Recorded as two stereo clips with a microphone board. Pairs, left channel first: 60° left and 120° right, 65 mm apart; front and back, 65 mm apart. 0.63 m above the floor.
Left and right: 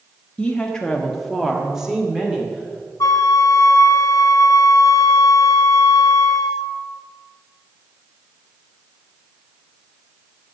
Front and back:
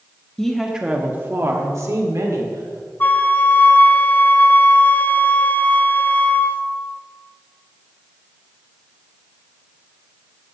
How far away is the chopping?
I don't hear chopping.